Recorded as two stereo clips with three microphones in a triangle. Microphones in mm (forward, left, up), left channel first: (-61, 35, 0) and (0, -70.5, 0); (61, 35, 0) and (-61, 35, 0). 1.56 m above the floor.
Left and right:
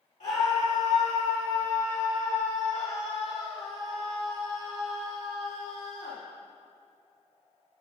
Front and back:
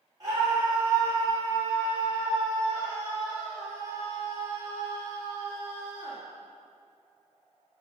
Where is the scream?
120° left, 1.4 m.